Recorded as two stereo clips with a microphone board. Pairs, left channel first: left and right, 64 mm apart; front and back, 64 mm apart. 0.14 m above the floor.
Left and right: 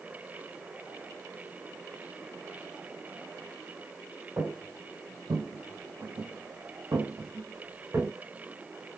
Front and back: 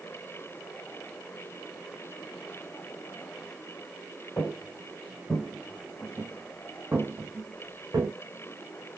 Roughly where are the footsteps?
Ahead right.